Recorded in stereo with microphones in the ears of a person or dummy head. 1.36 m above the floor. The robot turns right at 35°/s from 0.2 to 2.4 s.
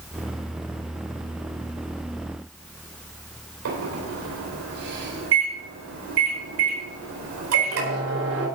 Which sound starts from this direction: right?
A microwave, at 3.6 s.